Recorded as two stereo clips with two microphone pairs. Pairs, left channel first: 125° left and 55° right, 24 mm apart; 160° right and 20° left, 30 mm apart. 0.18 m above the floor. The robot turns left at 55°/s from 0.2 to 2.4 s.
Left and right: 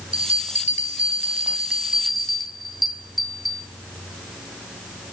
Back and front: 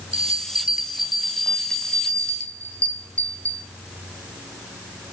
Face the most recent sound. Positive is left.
turn(degrees=-140)